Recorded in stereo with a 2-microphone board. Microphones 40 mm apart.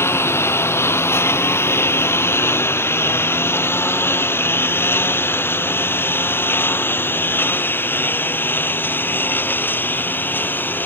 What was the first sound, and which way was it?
A lawn mower, 85° left.